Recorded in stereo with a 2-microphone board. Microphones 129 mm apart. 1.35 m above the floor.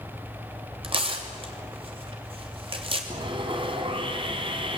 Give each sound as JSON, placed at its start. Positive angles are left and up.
{"t": 0.8, "sound": "tearing paper", "side_deg": -45, "distance_m": 3.0}
{"t": 3.1, "sound": "sawing", "side_deg": -40, "distance_m": 2.5}